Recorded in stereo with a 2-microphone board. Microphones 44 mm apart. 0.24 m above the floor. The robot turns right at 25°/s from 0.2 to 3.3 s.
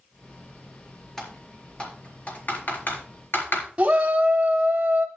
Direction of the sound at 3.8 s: 20° right (ahead or behind).